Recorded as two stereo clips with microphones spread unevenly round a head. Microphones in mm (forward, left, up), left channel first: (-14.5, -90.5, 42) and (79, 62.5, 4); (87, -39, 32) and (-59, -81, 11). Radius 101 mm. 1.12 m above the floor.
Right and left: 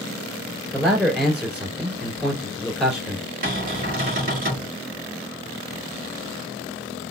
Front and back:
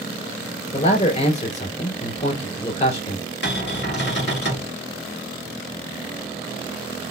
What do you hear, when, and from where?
0.7 s a man speaking: 30° right, 2.5 m
3.4 s a cupboard door: 20° left, 2 m